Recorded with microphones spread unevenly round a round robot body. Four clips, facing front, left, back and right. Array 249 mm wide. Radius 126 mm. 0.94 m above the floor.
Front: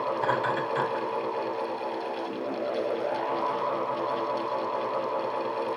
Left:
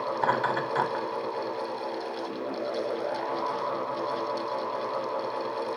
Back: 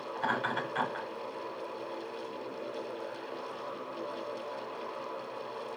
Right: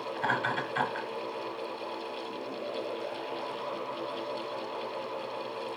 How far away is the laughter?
About 4.5 m.